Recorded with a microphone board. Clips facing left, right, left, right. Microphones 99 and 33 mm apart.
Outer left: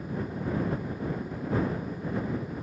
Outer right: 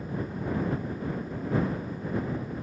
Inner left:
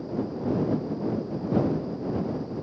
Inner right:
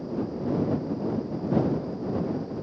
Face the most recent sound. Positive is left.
No sound to turn to.